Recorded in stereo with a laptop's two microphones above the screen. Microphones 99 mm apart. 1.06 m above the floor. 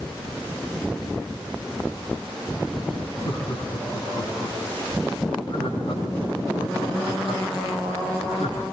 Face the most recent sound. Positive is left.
turn(degrees=65)  # may be behind; listen again after turning